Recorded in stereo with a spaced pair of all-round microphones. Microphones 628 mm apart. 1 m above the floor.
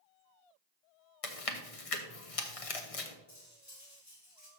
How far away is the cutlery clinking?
About 2 m.